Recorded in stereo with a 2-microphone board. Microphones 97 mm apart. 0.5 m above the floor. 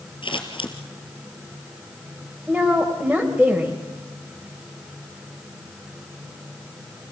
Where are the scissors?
60° left (ahead or behind), 2.5 m.